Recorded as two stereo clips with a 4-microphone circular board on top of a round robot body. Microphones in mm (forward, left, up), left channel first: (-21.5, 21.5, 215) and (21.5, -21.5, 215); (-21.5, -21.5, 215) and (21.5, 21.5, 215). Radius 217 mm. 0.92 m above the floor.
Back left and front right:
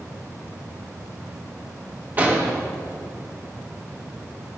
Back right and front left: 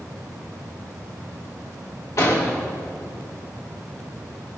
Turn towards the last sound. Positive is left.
turn(degrees=-105)